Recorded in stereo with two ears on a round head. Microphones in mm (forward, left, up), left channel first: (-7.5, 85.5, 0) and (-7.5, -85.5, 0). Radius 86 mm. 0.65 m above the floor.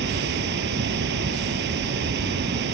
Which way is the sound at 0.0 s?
65° right (ahead or behind).